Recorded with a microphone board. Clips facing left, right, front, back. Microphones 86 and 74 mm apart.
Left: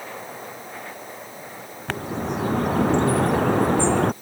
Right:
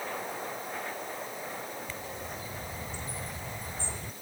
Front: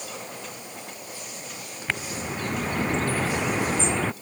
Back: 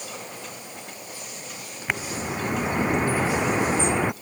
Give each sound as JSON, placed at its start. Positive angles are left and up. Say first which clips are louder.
{"t": 1.9, "sound": "a bird", "louder": "left 12 dB, back 2 dB", "azimuth_deg": 105}